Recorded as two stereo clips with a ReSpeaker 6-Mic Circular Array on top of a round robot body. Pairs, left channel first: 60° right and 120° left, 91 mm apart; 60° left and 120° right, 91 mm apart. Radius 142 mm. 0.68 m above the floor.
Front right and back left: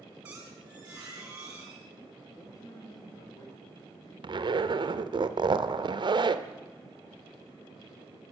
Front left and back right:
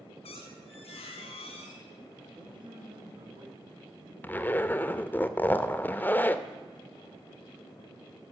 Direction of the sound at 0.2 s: 45° left.